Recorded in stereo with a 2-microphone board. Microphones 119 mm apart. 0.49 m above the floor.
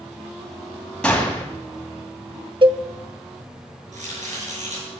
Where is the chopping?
85° right, 5.5 m.